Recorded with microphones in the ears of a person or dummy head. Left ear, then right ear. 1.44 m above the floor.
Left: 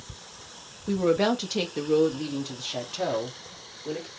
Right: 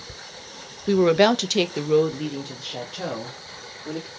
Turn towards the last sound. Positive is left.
turn(degrees=20)  # may be behind; listen again after turning